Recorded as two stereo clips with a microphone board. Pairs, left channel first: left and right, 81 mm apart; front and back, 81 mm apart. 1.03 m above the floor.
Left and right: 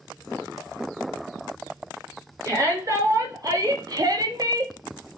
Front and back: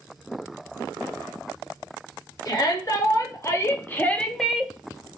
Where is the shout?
40° right, 2 m; by 4.7 s 115° right, 0.8 m.